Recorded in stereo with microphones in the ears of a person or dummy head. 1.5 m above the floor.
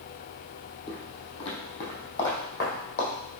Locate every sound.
0.9 s footsteps: 25° left (ahead or behind), 3 m; by 3.1 s 50° left (ahead or behind), 3.5 m